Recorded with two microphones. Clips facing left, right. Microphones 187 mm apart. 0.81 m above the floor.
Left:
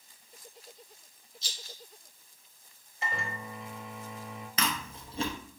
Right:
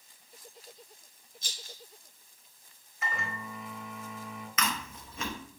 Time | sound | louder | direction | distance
1.4 | a rattle | even | 60° right (ahead or behind) | 0.9 m
3.0 | a microwave | even | 35° left (ahead or behind) | 0.9 m
4.6 | chewing | left 1 dB | 35° left (ahead or behind) | 0.7 m